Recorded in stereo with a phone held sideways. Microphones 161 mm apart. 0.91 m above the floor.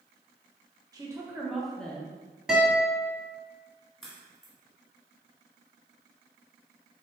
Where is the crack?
Centre (ahead or behind), 2.0 m.